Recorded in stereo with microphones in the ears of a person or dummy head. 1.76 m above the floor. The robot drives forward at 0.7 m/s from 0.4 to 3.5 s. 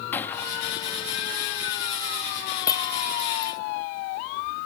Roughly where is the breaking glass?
Left.